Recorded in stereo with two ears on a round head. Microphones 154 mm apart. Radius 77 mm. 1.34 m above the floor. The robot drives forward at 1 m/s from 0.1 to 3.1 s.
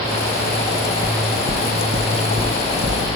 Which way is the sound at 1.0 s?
60° right (ahead or behind).